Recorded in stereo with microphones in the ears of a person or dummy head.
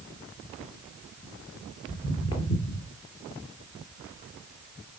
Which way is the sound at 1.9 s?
10° left (ahead or behind).